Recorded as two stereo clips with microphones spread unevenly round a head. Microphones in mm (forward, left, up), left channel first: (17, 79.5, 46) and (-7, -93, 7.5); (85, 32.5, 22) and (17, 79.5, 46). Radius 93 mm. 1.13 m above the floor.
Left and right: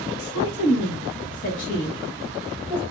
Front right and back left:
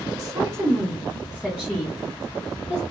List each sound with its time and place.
0.2 s a woman speaking: 100° left, 1.1 m; by 2.8 s 5° left, 1.6 m